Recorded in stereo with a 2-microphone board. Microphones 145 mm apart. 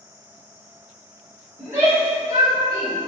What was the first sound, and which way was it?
A shout, 15° right (ahead or behind).